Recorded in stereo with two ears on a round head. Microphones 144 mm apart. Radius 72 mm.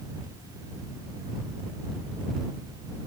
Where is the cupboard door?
No cupboard door in this recording.